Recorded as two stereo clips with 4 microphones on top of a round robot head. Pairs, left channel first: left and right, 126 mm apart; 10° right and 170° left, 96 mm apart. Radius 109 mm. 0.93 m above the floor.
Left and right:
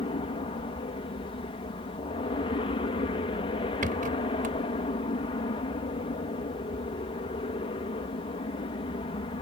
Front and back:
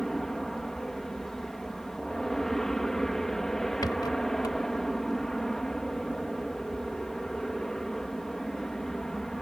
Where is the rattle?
70° right.